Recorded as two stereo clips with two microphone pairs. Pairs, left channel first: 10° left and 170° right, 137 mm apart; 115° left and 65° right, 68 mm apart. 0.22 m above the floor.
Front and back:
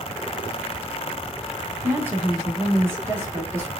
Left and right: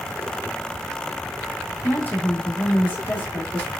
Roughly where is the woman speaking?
Behind left.